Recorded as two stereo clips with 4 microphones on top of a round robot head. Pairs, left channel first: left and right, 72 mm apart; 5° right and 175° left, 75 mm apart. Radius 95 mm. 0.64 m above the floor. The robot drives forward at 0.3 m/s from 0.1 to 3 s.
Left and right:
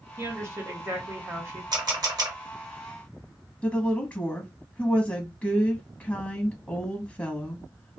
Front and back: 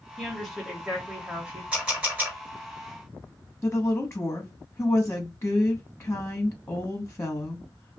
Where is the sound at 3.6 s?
30° left, 0.9 m.